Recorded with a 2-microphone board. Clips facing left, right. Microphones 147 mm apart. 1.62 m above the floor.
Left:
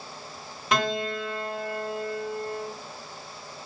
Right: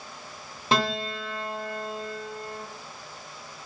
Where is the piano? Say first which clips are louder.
Even; 30° right (ahead or behind), 0.6 m.